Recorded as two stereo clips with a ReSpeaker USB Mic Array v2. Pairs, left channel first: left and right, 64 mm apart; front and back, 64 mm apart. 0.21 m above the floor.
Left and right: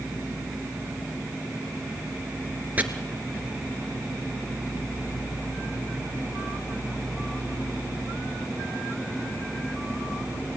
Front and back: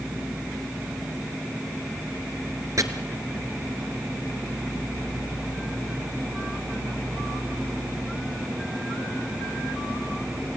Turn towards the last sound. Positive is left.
turn(degrees=-150)